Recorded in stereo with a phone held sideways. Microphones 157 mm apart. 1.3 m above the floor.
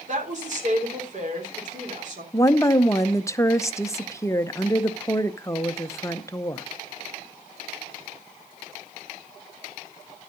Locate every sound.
0.1 s a woman speaking: 55° right (ahead or behind), 3.5 m
2.3 s a woman speaking: 20° left (ahead or behind), 0.8 m